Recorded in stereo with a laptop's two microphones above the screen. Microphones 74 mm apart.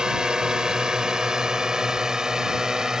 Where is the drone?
10° right (ahead or behind).